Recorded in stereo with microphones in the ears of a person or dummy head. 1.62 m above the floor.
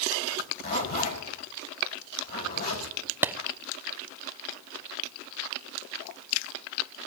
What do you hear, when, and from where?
0.3 s a zipper: 55° left (ahead or behind), 6.5 m
3.2 s a clap: 10° right (ahead or behind), 0.6 m